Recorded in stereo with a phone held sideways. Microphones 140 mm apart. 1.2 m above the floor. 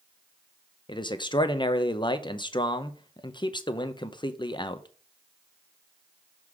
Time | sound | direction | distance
0.9 | a man speaking | 35° left (ahead or behind) | 0.6 m